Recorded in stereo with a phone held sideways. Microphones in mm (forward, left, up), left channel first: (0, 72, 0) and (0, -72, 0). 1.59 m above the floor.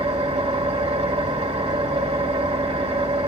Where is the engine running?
45° right (ahead or behind), 1.5 m.